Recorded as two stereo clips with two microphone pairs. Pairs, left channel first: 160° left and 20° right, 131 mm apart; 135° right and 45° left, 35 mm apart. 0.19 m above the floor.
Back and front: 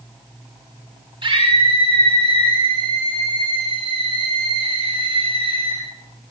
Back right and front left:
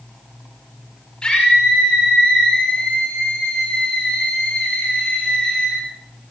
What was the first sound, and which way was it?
A scream, 65° right.